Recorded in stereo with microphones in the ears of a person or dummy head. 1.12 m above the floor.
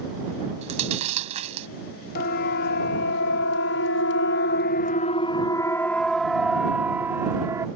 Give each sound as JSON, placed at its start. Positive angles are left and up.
{"t": 0.6, "sound": "chewing", "side_deg": -35}
{"t": 2.1, "sound": "a siren", "side_deg": 55}